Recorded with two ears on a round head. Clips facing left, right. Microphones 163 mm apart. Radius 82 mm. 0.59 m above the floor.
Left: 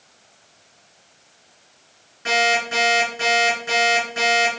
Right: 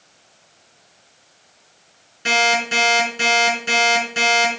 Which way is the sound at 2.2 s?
35° right (ahead or behind).